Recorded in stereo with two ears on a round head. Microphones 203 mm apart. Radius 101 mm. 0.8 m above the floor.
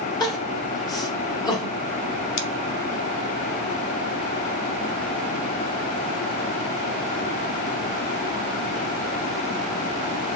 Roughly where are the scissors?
Left.